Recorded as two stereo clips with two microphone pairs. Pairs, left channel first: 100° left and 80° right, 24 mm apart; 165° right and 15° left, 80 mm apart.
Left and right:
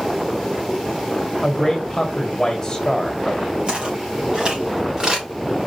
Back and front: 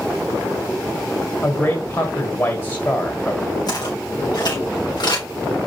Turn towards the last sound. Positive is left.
turn(degrees=-140)